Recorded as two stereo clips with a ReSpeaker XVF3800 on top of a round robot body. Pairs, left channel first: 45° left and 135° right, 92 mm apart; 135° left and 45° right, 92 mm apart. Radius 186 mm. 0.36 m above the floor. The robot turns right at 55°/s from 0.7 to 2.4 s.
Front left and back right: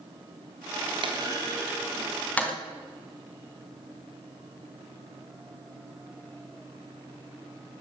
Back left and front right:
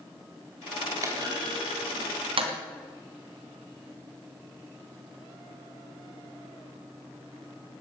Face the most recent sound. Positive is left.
turn(degrees=-25)